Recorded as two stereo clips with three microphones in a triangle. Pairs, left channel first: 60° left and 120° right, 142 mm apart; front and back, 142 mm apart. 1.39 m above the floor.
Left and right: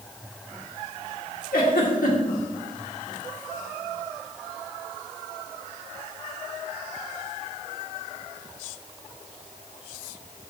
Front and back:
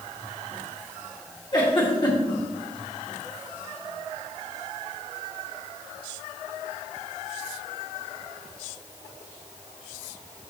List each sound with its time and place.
1.5 s a giggle: 55° left, 1.7 m